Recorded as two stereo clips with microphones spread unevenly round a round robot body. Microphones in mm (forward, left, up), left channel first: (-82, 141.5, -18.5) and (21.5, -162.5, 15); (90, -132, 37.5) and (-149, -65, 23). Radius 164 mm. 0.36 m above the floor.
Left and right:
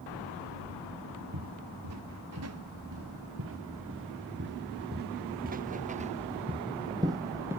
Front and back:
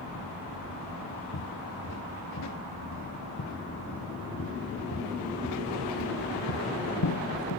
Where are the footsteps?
30° right; by 7.6 s 10° left.